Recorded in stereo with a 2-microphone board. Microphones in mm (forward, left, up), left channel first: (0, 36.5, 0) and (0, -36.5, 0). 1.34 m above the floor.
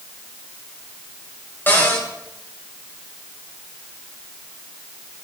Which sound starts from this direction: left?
A cupboard door, at 1.7 s.